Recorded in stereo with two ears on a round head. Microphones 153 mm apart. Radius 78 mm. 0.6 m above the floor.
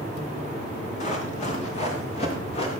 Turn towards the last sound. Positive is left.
turn(degrees=35)  # may be behind; listen again after turning